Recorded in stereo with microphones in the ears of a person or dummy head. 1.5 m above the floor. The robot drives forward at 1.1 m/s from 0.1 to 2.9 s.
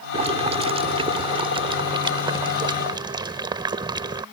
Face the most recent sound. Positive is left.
turn(degrees=-25)  # may be behind; listen again after turning